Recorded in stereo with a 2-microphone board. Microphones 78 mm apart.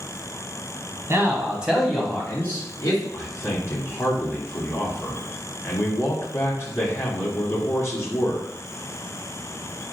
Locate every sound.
1.1 s a man speaking: 35° right (ahead or behind), 1.4 m; by 3.0 s 45° left (ahead or behind), 1.8 m
3.1 s a man speaking: 40° left (ahead or behind), 1.4 m